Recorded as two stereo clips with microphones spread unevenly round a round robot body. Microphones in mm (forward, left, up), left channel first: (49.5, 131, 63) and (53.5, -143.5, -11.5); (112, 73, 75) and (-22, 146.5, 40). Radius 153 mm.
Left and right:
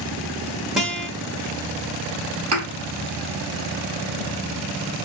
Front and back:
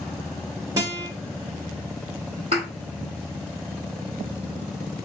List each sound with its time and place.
0.8 s a guitar: 165° right, 1.1 m
2.5 s a thud: 135° right, 1.6 m